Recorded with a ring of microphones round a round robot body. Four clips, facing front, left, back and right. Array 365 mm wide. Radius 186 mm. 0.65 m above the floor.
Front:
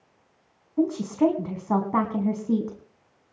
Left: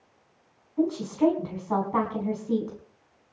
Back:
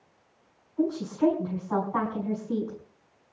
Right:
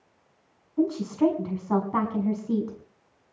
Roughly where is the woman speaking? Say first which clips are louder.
Right 1 dB, front 3 dB; ahead.